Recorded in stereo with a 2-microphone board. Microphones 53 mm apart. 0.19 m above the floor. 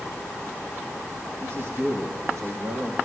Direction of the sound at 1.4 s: 50° right (ahead or behind).